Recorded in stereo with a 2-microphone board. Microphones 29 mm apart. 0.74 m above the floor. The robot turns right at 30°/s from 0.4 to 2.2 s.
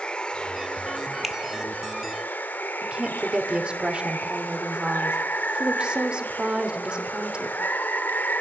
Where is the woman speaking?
30° right (ahead or behind), 2.5 m.